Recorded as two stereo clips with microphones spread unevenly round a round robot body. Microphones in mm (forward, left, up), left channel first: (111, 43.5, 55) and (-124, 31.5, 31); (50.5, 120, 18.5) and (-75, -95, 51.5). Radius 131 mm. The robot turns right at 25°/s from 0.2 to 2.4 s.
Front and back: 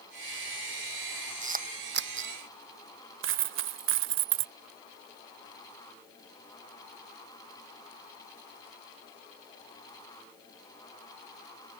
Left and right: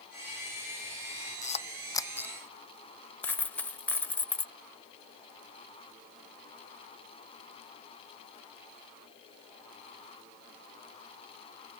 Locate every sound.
1.4 s a camera shutter: 125° left; by 2.3 s 145° left
3.2 s a dropped coin: 145° left